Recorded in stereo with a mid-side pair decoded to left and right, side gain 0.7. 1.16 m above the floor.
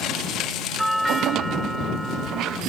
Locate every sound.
0.8 s a doorbell: straight ahead